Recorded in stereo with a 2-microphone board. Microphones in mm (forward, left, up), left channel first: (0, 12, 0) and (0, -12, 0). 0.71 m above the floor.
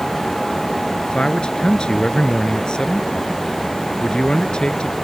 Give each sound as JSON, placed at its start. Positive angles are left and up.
{"t": 1.1, "sound": "a man speaking", "side_deg": 40}